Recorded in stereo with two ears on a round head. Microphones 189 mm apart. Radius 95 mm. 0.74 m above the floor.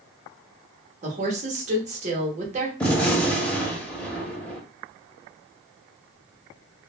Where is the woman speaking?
35° right (ahead or behind), 1.0 m.